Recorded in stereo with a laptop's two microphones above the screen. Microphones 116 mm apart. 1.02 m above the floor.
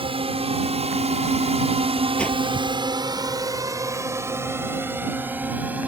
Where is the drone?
55° right (ahead or behind); by 5.9 s 10° right (ahead or behind).